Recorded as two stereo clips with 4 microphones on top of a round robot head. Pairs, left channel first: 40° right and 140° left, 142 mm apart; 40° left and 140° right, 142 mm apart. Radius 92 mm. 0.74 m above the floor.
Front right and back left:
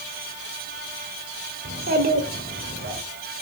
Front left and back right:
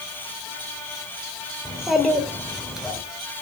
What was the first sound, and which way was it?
A child speaking, 130° left.